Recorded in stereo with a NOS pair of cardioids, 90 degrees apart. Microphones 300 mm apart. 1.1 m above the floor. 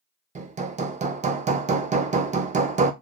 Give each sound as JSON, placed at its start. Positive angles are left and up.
{"t": 0.3, "sound": "hammering", "azimuth_deg": -25, "distance_m": 0.5}